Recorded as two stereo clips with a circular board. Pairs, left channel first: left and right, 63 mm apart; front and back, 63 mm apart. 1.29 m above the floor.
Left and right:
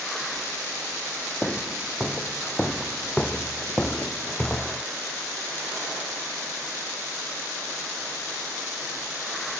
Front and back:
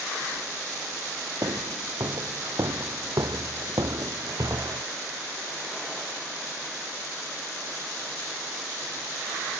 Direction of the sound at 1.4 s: 170° left.